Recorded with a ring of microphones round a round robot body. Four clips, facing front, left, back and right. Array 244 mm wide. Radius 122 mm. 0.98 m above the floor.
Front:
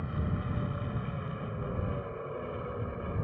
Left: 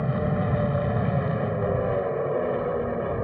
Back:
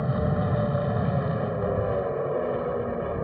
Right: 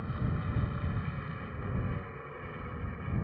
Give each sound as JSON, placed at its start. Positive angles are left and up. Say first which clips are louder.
{"t": 0.0, "sound": "an aircraft", "louder": "left 12 dB, back 10 dB", "azimuth_deg": 130}